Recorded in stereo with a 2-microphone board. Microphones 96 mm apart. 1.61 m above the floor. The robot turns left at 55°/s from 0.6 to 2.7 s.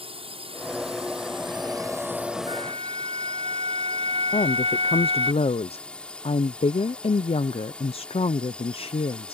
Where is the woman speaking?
75° left (ahead or behind).